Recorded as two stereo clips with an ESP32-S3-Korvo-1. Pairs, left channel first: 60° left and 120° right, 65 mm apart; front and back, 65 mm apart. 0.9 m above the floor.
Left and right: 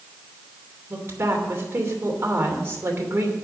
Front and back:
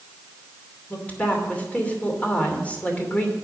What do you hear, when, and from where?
0.9 s a woman speaking: 65° right, 2.5 m